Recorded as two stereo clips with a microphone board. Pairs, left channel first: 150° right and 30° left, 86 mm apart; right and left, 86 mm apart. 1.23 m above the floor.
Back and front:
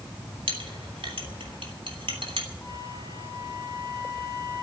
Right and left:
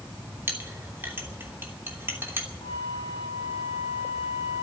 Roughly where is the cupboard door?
No cupboard door in this recording.